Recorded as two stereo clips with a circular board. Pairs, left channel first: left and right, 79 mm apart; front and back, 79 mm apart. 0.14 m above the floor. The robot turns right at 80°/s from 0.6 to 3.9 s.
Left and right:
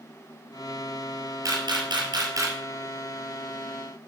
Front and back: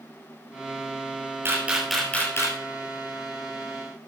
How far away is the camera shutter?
About 2 m.